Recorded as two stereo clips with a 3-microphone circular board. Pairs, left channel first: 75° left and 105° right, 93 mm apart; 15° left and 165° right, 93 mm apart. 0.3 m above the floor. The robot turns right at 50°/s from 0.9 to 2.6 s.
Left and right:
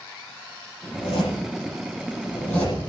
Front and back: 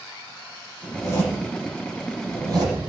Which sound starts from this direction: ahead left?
A zipper, at 0.8 s.